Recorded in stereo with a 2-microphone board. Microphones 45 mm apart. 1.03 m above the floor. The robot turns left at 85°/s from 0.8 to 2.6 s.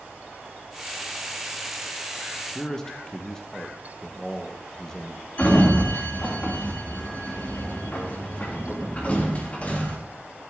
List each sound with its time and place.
2.5 s a man speaking: 15° left (ahead or behind), 1.4 m; by 5.3 s 10° left (ahead or behind), 1.4 m
5.4 s a sliding door: 30° left (ahead or behind), 2.5 m